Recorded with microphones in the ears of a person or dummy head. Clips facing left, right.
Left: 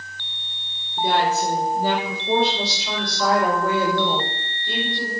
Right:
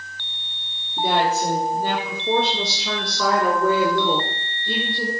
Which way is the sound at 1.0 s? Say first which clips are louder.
Even; 40° right (ahead or behind).